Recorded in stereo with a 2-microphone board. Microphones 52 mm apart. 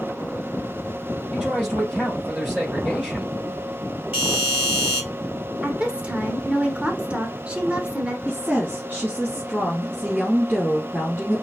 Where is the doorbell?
20° right (ahead or behind), 4 m.